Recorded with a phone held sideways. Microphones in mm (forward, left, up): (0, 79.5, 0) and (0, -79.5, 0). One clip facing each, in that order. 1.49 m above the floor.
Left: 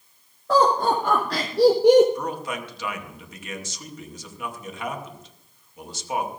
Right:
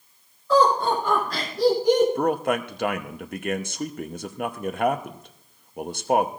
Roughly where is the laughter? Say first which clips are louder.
Even; left.